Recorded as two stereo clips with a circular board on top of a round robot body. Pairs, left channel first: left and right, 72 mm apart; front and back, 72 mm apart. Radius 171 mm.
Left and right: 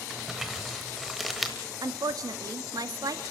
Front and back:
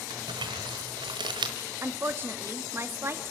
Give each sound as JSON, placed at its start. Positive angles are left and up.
{"t": 0.1, "sound": "crumpling", "azimuth_deg": -175, "distance_m": 1.0}
{"t": 1.8, "sound": "a woman speaking", "azimuth_deg": -125, "distance_m": 1.5}